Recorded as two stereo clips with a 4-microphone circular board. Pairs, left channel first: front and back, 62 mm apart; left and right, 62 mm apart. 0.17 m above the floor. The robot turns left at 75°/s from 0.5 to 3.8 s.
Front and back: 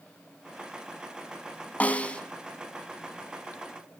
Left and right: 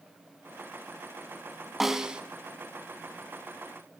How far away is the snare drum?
About 1.0 m.